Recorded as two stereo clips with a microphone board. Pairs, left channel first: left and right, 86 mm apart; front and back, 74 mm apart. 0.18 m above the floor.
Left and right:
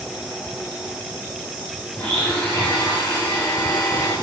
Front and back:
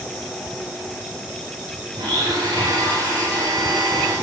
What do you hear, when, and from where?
1.9 s a blender: 160° left, 9 m